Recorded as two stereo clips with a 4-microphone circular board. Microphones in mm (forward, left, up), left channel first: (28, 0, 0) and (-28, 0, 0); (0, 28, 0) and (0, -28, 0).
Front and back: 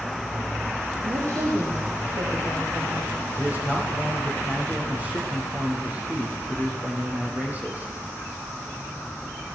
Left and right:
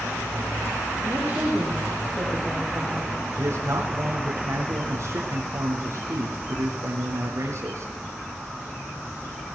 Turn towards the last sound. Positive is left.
turn(degrees=-120)